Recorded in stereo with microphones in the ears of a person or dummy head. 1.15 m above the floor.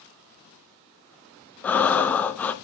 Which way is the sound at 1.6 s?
5° left (ahead or behind).